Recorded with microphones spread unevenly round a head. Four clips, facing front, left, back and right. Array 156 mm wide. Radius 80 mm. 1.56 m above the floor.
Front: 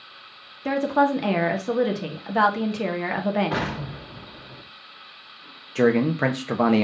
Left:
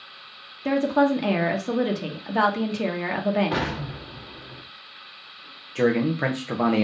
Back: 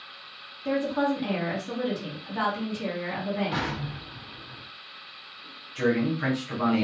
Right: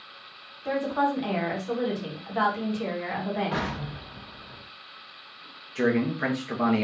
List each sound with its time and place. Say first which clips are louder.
0.7 s a woman speaking: left 5 dB, front 5 dB; 55° left, 1.4 m
3.5 s an explosion: left 3 dB, front 3 dB; 45° left, 1.7 m
5.8 s a man speaking: left 3 dB, front 6 dB; 15° left, 1.0 m